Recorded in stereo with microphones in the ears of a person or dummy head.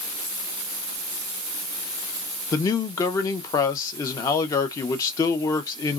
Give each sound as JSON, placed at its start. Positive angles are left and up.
{"t": 2.5, "sound": "a man speaking", "side_deg": 20, "distance_m": 0.7}